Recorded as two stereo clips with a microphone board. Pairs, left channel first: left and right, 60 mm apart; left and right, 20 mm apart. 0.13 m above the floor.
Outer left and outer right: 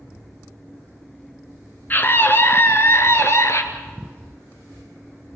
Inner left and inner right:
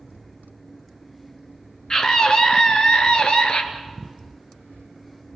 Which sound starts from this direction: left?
A scream, at 1.9 s.